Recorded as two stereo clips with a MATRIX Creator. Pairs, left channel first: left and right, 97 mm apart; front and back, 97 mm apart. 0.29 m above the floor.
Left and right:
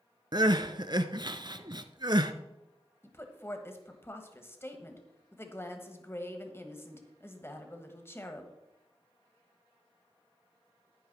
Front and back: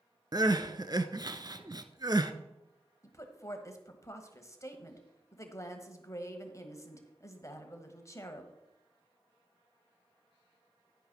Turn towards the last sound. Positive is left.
turn(degrees=40)